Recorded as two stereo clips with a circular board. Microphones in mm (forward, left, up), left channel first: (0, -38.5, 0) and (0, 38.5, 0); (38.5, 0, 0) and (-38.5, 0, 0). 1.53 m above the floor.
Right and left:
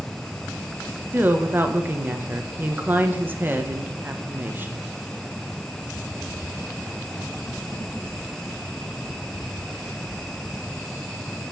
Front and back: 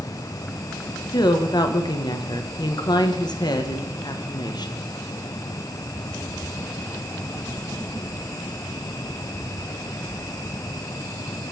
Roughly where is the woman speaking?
Ahead left.